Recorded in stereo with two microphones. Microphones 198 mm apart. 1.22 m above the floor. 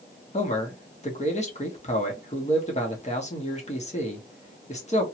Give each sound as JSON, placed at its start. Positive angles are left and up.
{"t": 0.3, "sound": "a man speaking", "side_deg": 35, "distance_m": 0.9}